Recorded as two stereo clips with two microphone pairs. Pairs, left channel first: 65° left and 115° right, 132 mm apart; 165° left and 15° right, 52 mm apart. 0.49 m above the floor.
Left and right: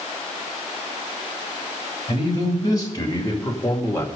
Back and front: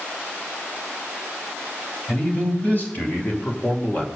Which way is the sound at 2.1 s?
115° left.